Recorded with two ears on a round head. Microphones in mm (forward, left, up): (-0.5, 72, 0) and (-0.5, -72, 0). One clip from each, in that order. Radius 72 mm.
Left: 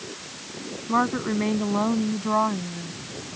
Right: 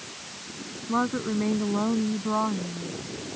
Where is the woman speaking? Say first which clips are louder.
Left 4 dB; 80° left; by 2.9 s 85° left.